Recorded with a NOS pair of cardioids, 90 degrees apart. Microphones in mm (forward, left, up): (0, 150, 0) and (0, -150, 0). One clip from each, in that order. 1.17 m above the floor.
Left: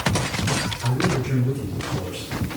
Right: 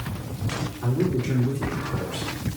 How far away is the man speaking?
About 2.5 m.